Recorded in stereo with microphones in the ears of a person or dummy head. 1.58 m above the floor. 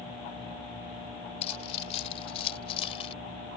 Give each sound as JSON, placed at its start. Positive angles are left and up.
{"t": 1.4, "sound": "keys jangling", "side_deg": 40}